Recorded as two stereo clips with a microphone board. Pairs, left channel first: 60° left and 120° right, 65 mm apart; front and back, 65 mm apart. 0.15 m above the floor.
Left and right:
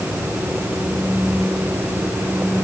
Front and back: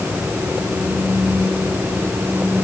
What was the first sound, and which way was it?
Only background noise.